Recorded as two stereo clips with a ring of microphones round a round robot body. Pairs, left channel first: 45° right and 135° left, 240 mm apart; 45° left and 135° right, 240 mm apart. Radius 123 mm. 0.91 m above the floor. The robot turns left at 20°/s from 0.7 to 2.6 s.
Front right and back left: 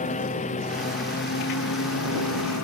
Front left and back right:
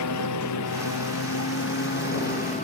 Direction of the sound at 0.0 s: 20° left.